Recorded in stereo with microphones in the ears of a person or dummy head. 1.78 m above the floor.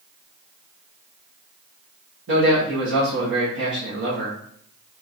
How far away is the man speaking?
About 1.3 m.